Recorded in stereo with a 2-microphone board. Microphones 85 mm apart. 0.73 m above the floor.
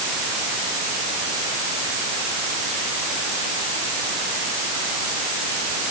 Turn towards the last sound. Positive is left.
No sound to turn to.